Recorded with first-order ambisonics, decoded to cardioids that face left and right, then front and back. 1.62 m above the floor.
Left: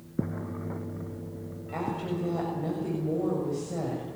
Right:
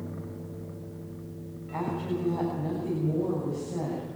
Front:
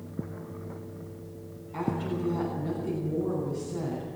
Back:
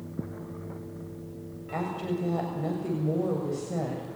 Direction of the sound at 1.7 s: 160° left.